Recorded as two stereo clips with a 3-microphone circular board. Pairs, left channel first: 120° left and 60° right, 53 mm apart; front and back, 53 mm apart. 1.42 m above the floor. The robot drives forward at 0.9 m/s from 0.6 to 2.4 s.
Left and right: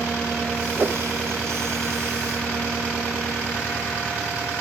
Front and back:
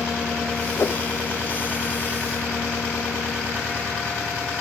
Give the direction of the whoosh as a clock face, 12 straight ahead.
12 o'clock.